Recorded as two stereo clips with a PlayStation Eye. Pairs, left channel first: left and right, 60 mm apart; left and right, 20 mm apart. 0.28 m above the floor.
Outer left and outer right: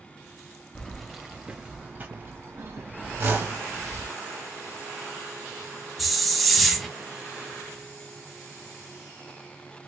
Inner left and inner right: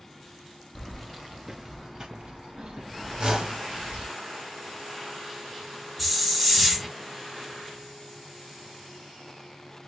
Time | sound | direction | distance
0.8 | keys jangling | 10° left (ahead or behind) | 0.7 m
3.2 | a whoosh | 45° right (ahead or behind) | 1.4 m
6.0 | a hiss | centre (ahead or behind) | 1.1 m